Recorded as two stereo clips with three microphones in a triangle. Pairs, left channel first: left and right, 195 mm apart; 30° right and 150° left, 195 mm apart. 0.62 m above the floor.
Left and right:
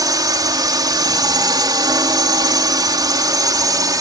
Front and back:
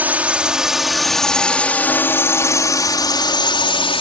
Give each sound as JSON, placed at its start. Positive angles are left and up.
{"t": 0.0, "sound": "a drone", "azimuth_deg": -140}